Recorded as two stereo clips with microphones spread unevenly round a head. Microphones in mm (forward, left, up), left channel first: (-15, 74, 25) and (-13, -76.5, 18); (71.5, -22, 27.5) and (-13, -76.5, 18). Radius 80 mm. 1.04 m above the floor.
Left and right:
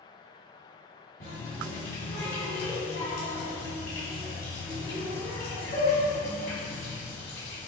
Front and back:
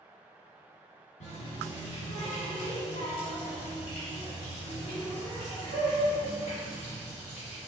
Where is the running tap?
55° left, 1.7 m.